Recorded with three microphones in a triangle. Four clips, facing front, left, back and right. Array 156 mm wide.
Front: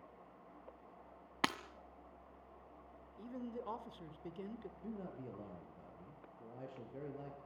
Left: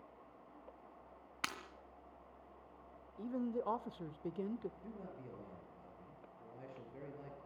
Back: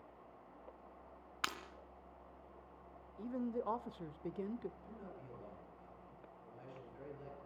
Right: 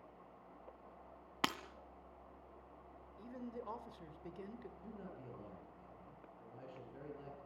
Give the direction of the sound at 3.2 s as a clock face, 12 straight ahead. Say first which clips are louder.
Left 9 dB, back 6 dB; 8 o'clock.